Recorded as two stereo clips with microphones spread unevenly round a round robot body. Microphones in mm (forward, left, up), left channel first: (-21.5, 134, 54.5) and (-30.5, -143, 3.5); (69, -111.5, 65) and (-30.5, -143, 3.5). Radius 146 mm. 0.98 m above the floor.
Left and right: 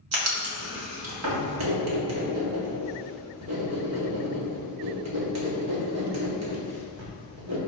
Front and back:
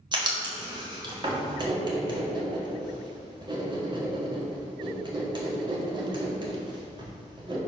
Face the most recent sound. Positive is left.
turn(degrees=-120)